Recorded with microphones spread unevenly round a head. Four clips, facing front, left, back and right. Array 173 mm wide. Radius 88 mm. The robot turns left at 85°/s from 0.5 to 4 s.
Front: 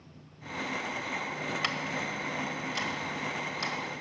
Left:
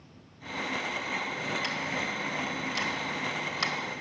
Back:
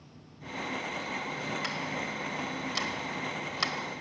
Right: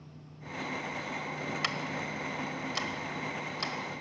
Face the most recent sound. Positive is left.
turn(degrees=120)